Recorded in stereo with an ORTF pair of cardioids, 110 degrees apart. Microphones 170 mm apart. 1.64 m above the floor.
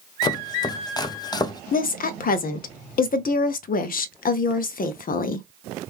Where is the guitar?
I don't hear a guitar.